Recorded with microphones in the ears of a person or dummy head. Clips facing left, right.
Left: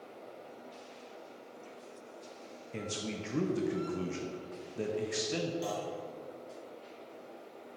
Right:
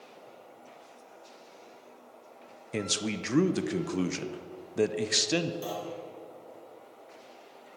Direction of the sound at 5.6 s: Centre (ahead or behind).